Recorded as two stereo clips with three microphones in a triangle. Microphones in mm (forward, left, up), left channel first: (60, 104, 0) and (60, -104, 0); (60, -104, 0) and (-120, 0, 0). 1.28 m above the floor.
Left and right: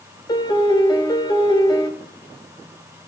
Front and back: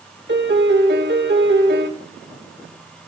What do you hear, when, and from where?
0.3 s a piano: 155° left, 1.4 m